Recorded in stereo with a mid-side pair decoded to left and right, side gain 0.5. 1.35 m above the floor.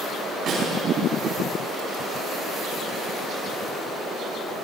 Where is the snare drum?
55° right, 5 m.